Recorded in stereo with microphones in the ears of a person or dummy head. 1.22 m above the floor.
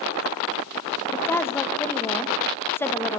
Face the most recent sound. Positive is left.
turn(degrees=15)  # may be behind; listen again after turning